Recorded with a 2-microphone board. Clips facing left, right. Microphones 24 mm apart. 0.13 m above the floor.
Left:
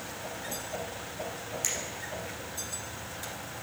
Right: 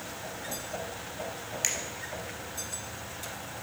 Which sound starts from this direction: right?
A finger snap, at 1.6 s.